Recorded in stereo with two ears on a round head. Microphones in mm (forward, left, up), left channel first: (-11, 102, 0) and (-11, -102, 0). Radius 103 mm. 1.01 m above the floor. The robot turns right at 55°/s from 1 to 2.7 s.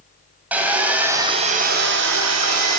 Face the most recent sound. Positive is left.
turn(degrees=-80)